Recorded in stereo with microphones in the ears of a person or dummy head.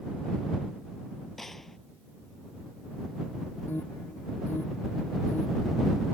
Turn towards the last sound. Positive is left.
turn(degrees=10)  # may be behind; listen again after turning